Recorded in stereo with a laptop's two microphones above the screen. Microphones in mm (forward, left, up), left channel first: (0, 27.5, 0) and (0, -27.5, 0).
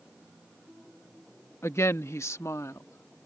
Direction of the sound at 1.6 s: 55° left (ahead or behind).